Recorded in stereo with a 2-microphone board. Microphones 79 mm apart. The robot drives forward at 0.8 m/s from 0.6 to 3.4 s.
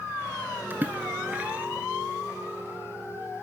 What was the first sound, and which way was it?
A splash, 25° right (ahead or behind).